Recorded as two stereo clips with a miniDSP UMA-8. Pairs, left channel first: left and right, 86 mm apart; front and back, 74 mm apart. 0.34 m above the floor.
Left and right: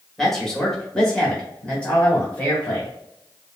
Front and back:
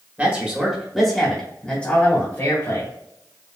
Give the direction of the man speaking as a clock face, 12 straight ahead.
6 o'clock.